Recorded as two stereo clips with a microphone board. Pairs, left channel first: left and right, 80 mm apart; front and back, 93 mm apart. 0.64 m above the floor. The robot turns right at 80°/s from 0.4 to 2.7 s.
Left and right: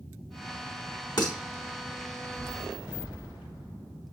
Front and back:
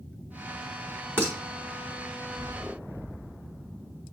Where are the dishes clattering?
115° left, 1.1 m; by 1.3 s 125° left, 1.1 m.